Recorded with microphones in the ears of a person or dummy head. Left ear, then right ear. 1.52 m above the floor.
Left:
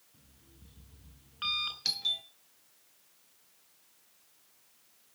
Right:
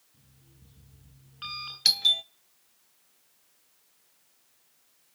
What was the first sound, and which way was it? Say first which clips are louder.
An alarm clock: left 1 dB; 20° left (ahead or behind).